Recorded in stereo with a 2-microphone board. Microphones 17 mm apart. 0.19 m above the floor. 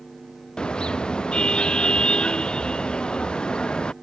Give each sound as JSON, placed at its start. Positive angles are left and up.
{"t": 0.6, "sound": "a car horn", "side_deg": 75}